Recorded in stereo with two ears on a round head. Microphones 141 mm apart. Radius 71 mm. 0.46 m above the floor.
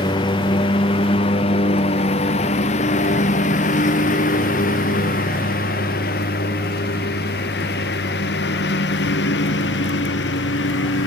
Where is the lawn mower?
30° left (ahead or behind); by 11.1 s 85° left.